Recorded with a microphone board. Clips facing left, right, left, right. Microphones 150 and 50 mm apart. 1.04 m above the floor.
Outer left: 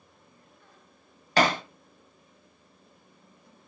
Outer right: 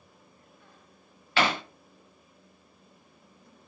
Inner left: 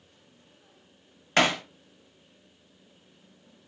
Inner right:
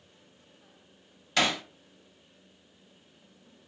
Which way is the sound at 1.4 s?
40° left (ahead or behind).